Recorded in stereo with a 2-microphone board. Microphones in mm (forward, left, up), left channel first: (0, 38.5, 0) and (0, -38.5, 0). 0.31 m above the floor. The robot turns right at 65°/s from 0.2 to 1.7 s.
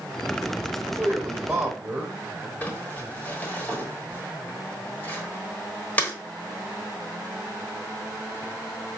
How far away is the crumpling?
About 1.2 m.